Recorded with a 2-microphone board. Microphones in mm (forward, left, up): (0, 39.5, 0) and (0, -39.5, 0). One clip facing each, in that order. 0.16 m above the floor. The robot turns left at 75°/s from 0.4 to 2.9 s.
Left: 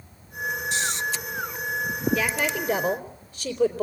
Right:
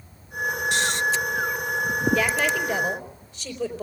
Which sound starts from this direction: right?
Snoring, at 0.7 s.